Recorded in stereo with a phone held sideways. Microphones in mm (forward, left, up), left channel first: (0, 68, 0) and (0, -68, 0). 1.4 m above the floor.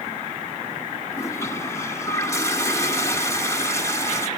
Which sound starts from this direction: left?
A toilet flushing, at 1.1 s.